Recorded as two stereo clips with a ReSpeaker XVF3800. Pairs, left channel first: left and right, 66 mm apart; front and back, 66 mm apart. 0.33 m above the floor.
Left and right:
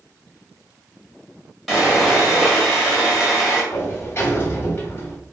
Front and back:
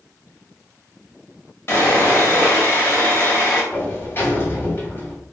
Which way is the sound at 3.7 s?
45° left.